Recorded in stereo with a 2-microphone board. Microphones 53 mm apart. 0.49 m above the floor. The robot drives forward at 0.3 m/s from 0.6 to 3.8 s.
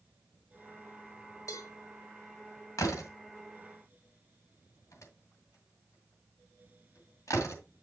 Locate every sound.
1.5 s a cowbell: 70° left (ahead or behind), 1.8 m
2.8 s a door slam: 65° left (ahead or behind), 2 m; by 7.6 s 60° left (ahead or behind), 2.5 m